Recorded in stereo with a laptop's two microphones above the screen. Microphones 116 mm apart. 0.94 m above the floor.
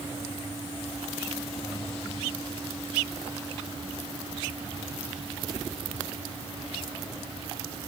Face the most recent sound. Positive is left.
No sound to turn to.